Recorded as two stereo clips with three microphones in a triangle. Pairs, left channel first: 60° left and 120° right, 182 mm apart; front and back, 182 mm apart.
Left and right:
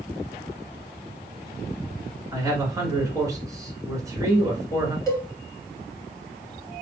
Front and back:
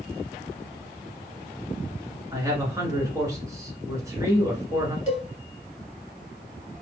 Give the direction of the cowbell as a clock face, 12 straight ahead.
12 o'clock.